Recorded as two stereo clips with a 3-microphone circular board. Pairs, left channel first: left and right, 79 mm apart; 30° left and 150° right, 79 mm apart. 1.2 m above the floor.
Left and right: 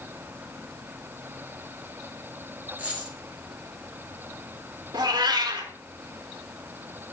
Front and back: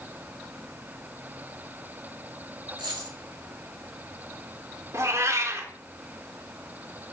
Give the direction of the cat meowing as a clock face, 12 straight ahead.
3 o'clock.